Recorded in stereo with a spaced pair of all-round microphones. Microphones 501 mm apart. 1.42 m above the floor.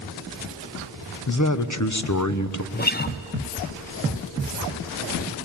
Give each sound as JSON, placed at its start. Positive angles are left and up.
{"t": 1.3, "sound": "a man speaking", "side_deg": 35, "distance_m": 0.8}
{"t": 2.7, "sound": "a guitar", "side_deg": 20, "distance_m": 0.5}